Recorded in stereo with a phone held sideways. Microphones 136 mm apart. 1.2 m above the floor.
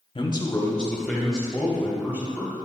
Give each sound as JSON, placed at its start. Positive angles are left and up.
{"t": 0.1, "sound": "a man speaking", "side_deg": 40, "distance_m": 0.8}